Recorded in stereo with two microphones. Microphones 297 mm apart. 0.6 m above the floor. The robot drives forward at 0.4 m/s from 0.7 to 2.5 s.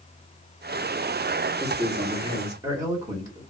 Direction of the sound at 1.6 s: 15° right (ahead or behind).